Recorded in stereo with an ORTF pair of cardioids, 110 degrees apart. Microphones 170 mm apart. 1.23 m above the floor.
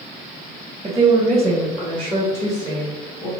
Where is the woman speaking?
20° right, 0.9 m; by 3.3 s 25° left, 2.5 m.